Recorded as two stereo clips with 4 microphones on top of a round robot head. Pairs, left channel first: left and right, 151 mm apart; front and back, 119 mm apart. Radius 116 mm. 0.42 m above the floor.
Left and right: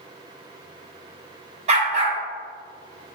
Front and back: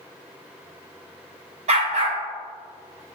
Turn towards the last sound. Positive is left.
turn(degrees=-140)